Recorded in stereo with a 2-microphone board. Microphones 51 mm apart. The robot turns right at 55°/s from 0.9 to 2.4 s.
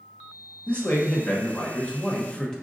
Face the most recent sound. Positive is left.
turn(degrees=10)  # may be behind; listen again after turning